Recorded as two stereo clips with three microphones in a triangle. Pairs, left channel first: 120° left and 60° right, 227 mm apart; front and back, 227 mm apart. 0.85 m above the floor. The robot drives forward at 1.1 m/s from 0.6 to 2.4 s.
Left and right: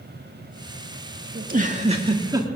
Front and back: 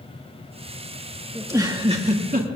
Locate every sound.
1.4 s a giggle: 100° right, 1.8 m; by 2.5 s 130° right, 2 m